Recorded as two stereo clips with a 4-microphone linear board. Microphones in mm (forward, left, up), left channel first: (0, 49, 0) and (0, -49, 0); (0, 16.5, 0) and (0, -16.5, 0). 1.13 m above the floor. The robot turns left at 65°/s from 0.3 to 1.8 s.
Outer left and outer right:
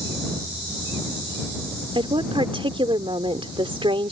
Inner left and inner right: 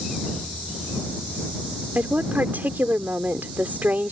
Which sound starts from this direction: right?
A woman speaking, at 1.9 s.